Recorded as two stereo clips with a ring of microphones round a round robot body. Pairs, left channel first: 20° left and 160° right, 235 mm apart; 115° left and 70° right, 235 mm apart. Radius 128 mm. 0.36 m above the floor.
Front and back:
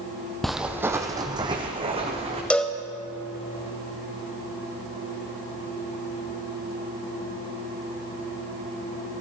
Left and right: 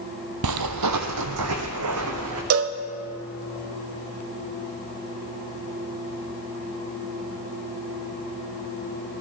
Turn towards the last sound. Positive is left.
turn(degrees=-65)